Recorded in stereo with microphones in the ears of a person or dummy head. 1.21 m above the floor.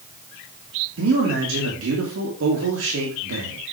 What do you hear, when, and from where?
1.0 s a man speaking: 75° right (ahead or behind), 2.5 m